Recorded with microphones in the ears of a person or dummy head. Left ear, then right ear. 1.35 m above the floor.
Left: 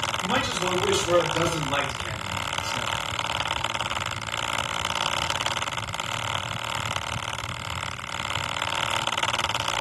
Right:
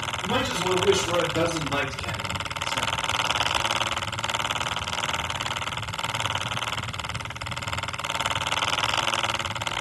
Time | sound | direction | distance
0.2 | a man speaking | 50° left (ahead or behind) | 4.5 m